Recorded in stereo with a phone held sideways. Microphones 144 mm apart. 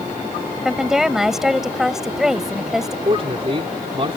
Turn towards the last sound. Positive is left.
turn(degrees=-40)  # may be behind; listen again after turning